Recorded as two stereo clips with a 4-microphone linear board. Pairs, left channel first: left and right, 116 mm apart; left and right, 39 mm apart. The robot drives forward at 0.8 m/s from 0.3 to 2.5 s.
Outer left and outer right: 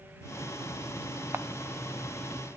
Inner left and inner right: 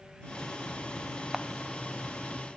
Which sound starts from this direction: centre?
A camera shutter, at 1.3 s.